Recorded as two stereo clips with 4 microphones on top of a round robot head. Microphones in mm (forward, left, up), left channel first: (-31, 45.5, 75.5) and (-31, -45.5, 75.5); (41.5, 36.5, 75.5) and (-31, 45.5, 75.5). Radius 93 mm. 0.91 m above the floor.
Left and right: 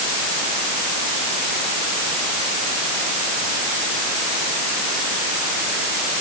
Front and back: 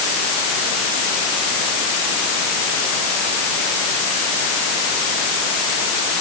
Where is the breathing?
No breathing in this recording.